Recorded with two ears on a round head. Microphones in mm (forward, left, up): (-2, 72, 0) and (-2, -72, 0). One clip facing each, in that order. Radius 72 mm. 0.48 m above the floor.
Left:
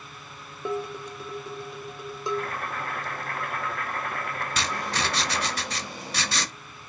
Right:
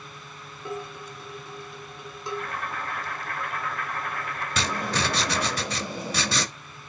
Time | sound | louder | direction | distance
0.7 | dishes clattering | left 5 dB | 65° left (ahead or behind) | 1.2 m
2.3 | boiling | left 2 dB | 50° left (ahead or behind) | 1.7 m
4.6 | writing | right 4 dB | 75° right (ahead or behind) | 0.6 m